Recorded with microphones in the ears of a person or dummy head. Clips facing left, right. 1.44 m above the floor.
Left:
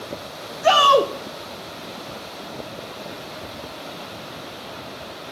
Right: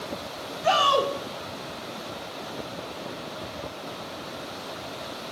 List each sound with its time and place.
0.6 s a shout: 65° left (ahead or behind), 1.0 m